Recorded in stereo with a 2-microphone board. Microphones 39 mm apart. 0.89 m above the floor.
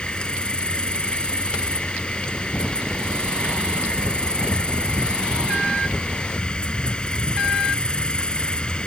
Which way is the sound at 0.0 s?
25° left (ahead or behind).